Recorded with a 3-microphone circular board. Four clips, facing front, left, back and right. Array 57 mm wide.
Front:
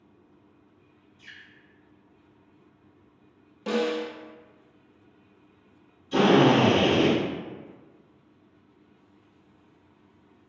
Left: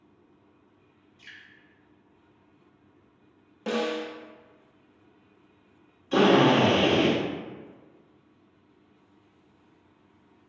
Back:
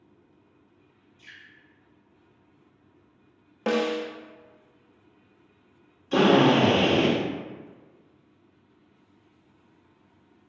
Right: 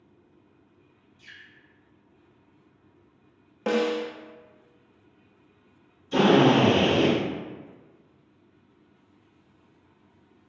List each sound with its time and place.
1.2 s dripping: 85° left, 1.4 m
3.7 s a snare drum: 150° right, 0.6 m
6.1 s a drill: 135° left, 1.6 m